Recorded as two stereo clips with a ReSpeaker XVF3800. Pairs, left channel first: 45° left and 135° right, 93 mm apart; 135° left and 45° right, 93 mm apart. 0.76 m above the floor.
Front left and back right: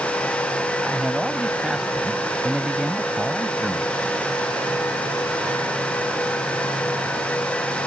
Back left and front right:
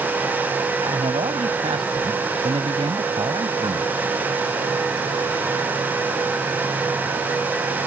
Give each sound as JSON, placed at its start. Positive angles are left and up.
{"t": 0.8, "sound": "a man speaking", "azimuth_deg": -50}